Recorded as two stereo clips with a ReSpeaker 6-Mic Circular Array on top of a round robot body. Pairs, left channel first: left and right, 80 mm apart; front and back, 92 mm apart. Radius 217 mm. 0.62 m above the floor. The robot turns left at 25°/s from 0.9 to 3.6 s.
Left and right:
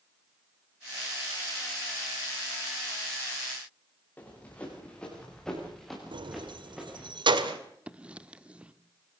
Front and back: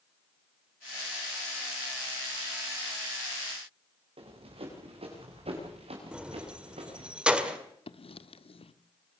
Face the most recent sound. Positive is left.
turn(degrees=-15)